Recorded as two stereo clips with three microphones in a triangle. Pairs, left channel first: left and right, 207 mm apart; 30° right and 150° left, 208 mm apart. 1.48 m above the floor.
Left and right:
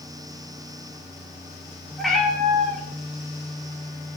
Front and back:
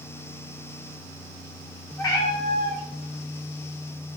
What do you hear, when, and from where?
2.0 s a cat meowing: straight ahead, 0.8 m